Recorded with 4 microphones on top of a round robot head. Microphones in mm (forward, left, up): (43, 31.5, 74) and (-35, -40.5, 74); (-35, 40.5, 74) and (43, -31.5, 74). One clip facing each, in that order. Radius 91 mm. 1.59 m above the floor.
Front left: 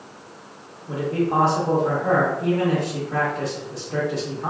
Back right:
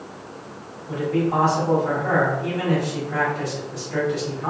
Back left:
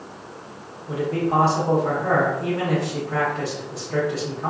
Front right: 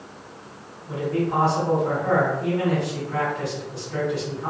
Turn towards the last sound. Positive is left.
turn(degrees=90)